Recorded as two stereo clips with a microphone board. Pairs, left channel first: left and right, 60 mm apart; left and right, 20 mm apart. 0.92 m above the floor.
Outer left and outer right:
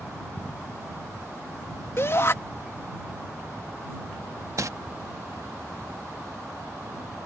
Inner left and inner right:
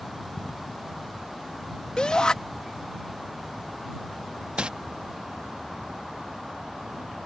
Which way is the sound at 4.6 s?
60° right (ahead or behind).